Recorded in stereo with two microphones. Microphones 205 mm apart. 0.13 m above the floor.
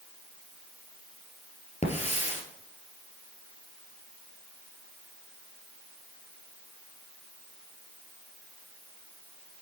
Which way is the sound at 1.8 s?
35° left (ahead or behind).